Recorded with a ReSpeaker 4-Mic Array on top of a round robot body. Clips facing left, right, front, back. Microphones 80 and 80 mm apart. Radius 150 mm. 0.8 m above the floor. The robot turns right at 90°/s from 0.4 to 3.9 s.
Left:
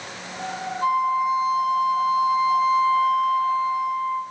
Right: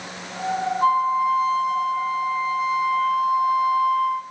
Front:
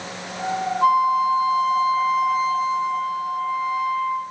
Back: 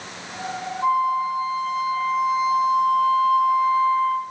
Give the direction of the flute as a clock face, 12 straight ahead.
1 o'clock.